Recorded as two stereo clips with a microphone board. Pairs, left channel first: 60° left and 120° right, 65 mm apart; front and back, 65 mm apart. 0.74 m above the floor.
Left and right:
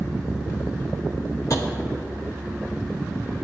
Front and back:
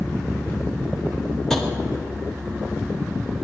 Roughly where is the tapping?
Left.